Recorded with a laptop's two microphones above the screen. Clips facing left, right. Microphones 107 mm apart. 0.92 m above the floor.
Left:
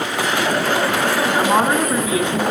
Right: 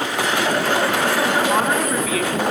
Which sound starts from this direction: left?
A woman speaking, at 1.4 s.